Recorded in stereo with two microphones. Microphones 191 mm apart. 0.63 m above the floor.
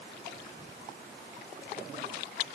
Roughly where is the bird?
I don't hear a bird.